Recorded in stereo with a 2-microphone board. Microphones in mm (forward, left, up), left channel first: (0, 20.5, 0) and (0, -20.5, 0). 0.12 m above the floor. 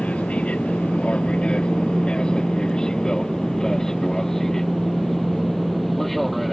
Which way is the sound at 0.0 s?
30° left (ahead or behind).